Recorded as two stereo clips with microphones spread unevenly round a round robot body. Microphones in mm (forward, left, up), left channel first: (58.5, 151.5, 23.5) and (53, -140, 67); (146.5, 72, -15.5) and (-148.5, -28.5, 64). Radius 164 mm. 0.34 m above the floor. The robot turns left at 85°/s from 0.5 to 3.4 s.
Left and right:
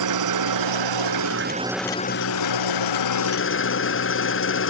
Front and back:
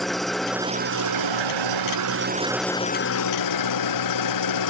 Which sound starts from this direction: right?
An engine running, at 0.0 s.